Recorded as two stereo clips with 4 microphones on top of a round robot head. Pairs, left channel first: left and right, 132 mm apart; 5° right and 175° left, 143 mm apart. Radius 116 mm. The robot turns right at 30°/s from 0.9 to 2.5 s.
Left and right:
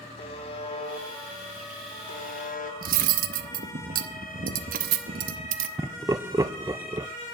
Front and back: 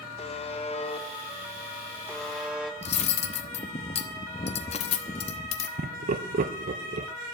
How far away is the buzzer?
About 2.5 m.